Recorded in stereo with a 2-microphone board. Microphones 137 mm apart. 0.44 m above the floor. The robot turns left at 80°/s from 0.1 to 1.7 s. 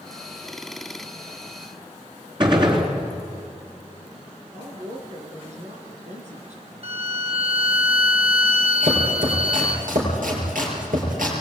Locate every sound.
2.4 s a gunshot: 35° right (ahead or behind), 3.5 m
4.5 s a woman speaking: 55° right (ahead or behind), 5 m
6.8 s a violin: 45° right (ahead or behind), 1.1 m
8.8 s chopping: 80° right, 7.5 m